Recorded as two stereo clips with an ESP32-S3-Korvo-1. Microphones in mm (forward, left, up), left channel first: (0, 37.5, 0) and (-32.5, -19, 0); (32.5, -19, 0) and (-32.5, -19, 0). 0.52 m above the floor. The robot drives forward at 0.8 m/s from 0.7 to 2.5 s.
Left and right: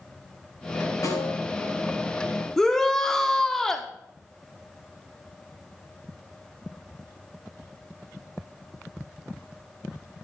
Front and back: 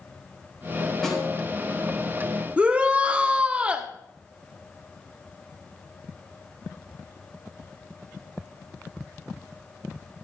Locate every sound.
1.0 s a snare drum: 85° left, 4 m
2.6 s a shout: 130° left, 1.1 m